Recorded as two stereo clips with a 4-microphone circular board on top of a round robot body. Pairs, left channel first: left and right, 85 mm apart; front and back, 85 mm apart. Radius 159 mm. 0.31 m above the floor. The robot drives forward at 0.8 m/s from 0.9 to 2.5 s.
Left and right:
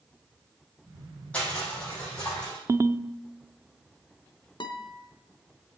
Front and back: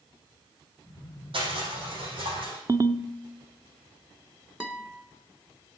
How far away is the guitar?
About 1.6 m.